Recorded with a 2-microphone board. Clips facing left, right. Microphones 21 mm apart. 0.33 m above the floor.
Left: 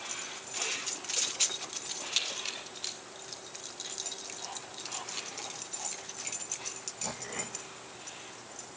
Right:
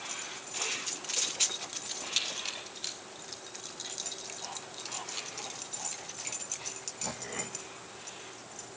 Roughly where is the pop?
I don't hear a pop.